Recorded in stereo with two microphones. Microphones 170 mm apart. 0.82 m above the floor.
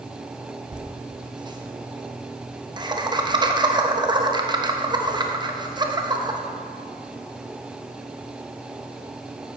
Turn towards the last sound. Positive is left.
turn(degrees=-25)  # may be behind; listen again after turning